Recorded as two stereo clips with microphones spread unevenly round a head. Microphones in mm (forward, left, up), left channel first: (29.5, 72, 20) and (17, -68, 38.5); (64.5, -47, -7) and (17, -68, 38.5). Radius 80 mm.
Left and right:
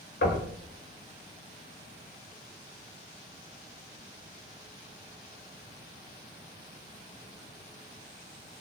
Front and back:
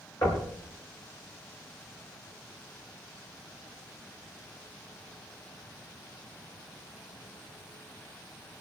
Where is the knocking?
80° left, 6.5 m.